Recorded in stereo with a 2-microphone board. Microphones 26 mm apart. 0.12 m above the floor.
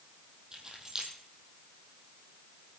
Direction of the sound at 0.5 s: 25° right (ahead or behind).